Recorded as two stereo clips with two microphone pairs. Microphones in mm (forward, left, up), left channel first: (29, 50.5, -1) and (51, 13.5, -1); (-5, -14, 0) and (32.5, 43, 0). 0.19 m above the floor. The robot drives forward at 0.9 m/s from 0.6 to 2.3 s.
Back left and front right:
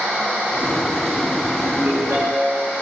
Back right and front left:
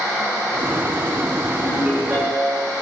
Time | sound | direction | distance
1.6 | a ringtone | 15° right | 8.5 m